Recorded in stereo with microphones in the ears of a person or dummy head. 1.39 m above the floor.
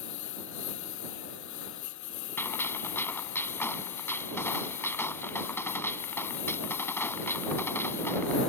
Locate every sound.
0.0 s a lawn mower: 75° left (ahead or behind); by 8.5 s 70° left (ahead or behind)
2.4 s a gunshot: 15° left (ahead or behind)